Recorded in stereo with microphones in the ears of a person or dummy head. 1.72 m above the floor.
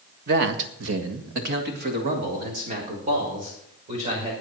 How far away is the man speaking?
About 1.7 m.